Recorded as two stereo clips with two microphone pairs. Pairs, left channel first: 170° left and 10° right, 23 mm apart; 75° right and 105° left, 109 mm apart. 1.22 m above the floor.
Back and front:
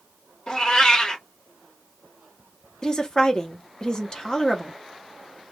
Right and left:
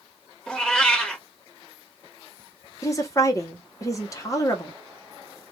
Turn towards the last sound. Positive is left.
turn(degrees=-130)